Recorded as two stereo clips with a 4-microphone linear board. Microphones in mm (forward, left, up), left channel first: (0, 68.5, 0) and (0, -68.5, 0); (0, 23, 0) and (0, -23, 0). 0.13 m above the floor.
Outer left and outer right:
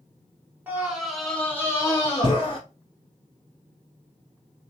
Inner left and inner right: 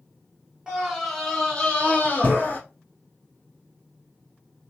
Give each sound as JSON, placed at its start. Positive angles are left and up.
{"t": 0.7, "sound": "a scream", "side_deg": -10, "distance_m": 1.3}